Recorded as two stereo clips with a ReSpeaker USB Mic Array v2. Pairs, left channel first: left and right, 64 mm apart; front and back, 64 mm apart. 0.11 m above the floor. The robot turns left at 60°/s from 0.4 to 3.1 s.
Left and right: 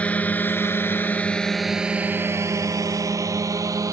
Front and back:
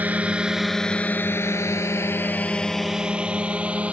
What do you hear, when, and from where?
0.0 s a drone: 140° left; by 3.9 s 110° right